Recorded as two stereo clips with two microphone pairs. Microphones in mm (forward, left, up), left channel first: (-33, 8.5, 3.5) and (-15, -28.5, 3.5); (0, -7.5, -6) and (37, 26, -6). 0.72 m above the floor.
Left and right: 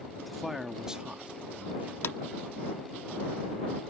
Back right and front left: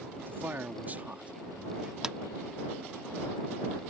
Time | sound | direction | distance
0.2 | a man speaking | 30° left | ?
2.0 | a clap | 115° left | ?